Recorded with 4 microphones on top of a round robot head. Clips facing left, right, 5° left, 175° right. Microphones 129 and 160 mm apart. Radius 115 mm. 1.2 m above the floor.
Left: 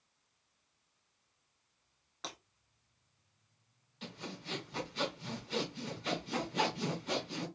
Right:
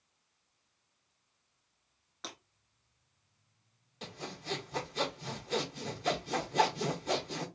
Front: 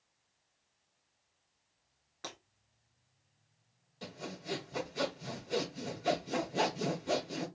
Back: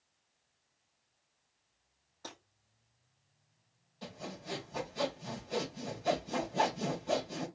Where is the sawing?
45° right, 1.8 m.